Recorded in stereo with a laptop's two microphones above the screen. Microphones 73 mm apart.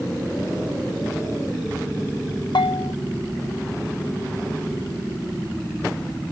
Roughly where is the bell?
Left.